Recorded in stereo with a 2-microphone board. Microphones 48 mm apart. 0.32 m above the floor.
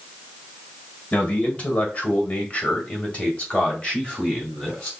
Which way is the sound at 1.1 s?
30° left (ahead or behind).